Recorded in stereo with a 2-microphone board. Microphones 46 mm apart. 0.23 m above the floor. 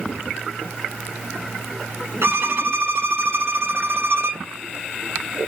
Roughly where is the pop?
I don't hear a pop.